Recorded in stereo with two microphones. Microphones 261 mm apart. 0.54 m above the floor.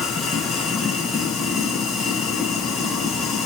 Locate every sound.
0.0 s running water: centre (ahead or behind), 2.5 m